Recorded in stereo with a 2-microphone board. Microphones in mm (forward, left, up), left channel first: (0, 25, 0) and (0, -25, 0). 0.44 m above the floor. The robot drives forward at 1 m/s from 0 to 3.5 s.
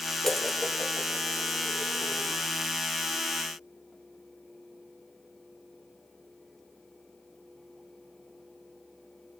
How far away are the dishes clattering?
About 0.7 m.